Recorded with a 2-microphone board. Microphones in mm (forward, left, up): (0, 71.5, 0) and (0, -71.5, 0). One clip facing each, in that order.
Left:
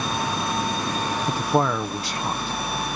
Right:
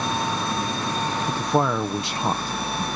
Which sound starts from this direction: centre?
A man speaking, at 1.3 s.